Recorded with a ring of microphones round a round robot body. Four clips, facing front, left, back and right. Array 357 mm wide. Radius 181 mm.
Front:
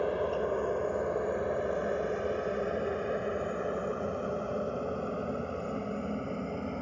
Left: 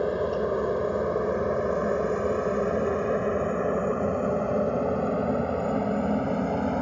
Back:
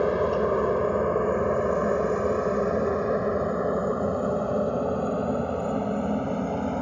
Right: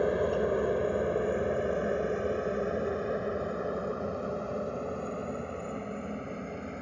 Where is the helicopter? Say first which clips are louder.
Left 2 dB, back 7 dB; 175° left; by 6.8 s 125° left.